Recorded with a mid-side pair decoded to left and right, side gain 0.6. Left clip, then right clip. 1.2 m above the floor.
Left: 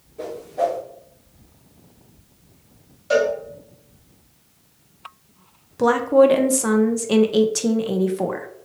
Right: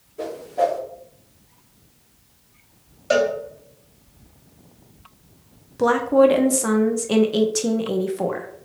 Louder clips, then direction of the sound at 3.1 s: Even; 25° right.